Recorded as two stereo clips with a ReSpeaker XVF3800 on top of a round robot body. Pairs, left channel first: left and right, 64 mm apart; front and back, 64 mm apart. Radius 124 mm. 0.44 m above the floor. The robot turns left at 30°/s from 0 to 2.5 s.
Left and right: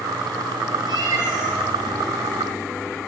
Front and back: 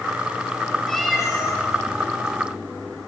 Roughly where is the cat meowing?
Right.